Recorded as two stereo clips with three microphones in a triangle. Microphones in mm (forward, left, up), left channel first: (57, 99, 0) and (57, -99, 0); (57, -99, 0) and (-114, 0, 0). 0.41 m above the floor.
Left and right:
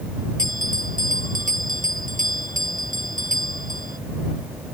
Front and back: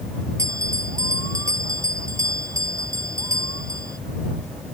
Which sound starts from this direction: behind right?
A bell, at 0.4 s.